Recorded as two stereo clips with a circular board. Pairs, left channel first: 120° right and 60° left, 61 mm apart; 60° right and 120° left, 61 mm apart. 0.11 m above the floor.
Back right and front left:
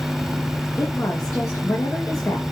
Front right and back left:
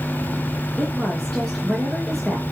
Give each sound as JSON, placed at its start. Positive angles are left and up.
{"t": 0.8, "sound": "a woman speaking", "azimuth_deg": -145, "distance_m": 10.0}